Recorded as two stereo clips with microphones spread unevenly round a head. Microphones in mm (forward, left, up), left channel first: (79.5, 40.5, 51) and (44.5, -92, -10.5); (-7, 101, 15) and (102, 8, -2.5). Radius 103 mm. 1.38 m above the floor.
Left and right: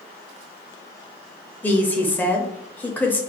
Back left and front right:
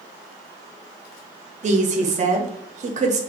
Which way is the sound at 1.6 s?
Straight ahead.